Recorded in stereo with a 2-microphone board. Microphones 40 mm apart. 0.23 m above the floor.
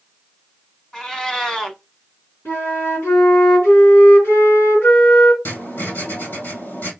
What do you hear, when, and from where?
0.9 s a cat meowing: 15° left (ahead or behind), 1.1 m
2.5 s a flute: 65° left (ahead or behind), 3 m
5.5 s writing: 60° left (ahead or behind), 2 m